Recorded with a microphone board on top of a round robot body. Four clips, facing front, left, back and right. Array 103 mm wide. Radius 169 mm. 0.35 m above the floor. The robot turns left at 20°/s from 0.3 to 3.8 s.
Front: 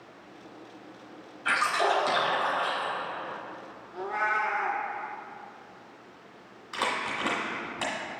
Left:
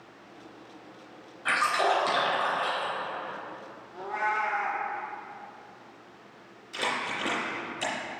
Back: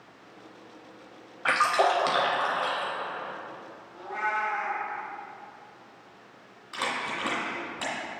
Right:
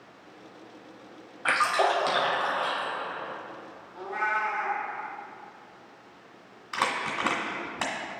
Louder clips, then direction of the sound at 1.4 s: Right 1 dB, back 3 dB; 150° right.